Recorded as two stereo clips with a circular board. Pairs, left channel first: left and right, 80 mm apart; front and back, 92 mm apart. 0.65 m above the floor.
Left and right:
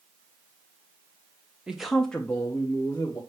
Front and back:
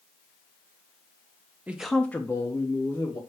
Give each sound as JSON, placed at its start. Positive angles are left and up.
{"t": 1.7, "sound": "a man speaking", "azimuth_deg": -150, "distance_m": 0.5}